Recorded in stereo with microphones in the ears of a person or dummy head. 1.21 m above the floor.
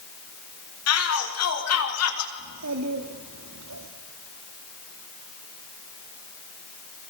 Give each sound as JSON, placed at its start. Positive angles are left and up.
{"t": 0.9, "sound": "a shout", "side_deg": 75, "distance_m": 5.0}
{"t": 2.4, "sound": "a child speaking", "side_deg": -90, "distance_m": 2.0}